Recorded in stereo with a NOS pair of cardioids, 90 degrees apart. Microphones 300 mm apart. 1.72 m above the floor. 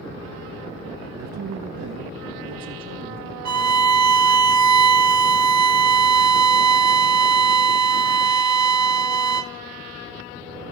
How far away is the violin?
About 0.7 m.